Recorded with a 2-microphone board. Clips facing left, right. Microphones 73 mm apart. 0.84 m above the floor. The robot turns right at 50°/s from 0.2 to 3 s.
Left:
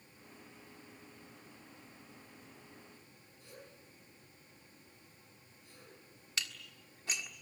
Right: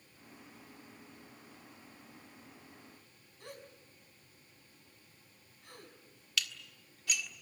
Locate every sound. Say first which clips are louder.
3.4 s a gasp: right 5 dB; 80° right, 5 m
6.4 s dishes clattering: right 3 dB; 35° left (ahead or behind), 1.5 m